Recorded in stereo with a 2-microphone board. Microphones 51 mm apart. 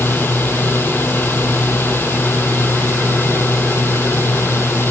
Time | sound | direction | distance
0.0 | a drone | 45° left (ahead or behind) | ?